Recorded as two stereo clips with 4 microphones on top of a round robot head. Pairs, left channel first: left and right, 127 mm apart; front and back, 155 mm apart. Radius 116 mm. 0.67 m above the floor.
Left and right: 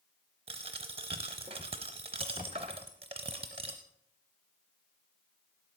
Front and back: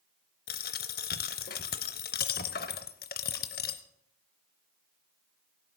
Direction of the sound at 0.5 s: 30° right.